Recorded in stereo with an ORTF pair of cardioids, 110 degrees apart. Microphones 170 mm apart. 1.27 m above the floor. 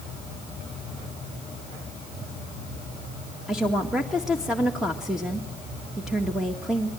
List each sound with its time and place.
3.5 s a woman speaking: 5° right, 1.9 m